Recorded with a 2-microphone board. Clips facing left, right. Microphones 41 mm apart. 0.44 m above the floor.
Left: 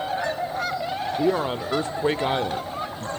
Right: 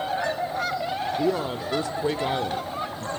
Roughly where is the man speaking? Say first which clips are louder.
Left 5 dB; left.